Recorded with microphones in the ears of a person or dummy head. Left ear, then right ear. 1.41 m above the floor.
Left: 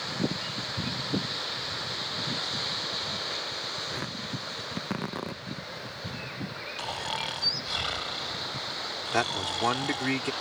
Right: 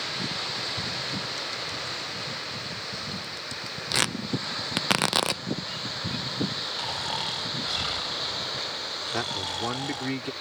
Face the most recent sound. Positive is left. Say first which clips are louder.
# left 4 dB
turn(degrees=35)  # may be behind; listen again after turning